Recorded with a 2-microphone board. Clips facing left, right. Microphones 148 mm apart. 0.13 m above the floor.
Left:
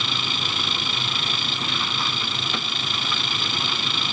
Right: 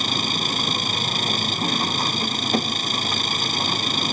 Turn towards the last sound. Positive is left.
turn(degrees=-45)  # may be behind; listen again after turning